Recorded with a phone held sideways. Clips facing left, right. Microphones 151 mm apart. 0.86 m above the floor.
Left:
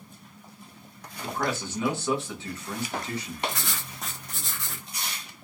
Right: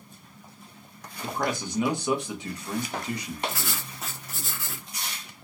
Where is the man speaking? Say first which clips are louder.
Right 1 dB; 15° right (ahead or behind), 0.9 m.